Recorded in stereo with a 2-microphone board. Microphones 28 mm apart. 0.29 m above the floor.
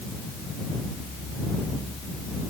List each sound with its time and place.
Only background noise.